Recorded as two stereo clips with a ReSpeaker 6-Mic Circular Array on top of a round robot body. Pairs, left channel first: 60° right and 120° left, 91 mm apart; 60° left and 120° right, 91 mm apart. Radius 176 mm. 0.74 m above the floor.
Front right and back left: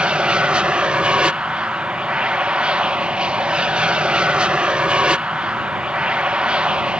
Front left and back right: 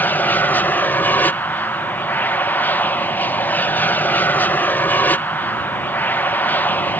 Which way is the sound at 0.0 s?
65° left.